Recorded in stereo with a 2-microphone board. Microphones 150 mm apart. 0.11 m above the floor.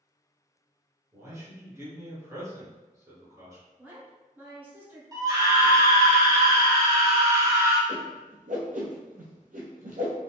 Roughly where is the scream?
Right.